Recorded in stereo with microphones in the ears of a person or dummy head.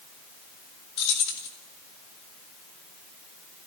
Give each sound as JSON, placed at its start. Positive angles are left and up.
{"t": 1.0, "sound": "keys jangling", "side_deg": 60, "distance_m": 2.5}